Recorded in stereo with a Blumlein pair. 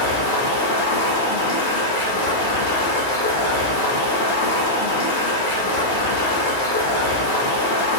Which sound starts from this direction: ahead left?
Running water, at 0.0 s.